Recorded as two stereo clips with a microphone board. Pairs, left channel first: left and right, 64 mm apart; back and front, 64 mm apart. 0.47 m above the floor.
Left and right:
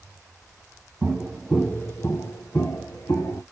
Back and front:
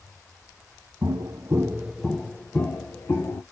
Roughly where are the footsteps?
Ahead.